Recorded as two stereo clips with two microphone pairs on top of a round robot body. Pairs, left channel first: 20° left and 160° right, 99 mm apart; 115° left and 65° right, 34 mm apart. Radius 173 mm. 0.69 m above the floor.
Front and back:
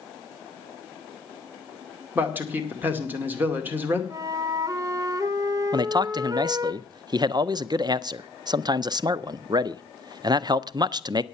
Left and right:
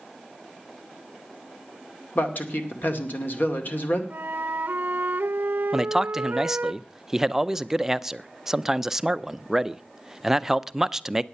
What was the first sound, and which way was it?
A man speaking, 130° left.